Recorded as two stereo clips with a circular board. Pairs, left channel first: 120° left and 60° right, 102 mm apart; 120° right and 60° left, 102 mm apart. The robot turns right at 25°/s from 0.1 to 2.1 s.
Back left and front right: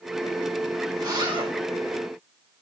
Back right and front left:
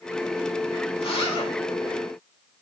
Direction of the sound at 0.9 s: 105° right.